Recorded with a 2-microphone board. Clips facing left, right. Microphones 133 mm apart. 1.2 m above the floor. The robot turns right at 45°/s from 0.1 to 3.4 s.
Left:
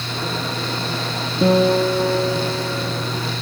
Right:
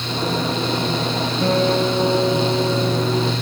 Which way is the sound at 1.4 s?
160° left.